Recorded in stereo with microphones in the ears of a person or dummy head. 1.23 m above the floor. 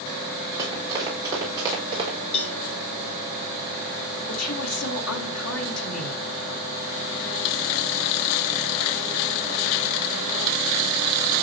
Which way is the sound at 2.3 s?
35° left (ahead or behind).